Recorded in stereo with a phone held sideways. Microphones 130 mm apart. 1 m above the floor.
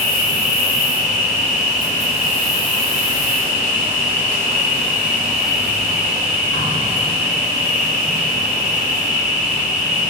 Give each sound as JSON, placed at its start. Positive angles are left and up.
{"t": 0.0, "sound": "an insect", "side_deg": 65, "distance_m": 1.2}